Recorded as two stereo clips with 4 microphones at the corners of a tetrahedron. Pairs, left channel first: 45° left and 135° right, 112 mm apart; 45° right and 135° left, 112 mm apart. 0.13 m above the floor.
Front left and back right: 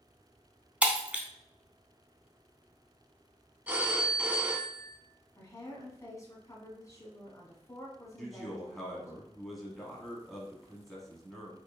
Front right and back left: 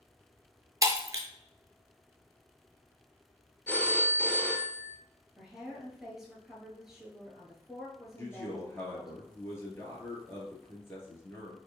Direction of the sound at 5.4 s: 55° left.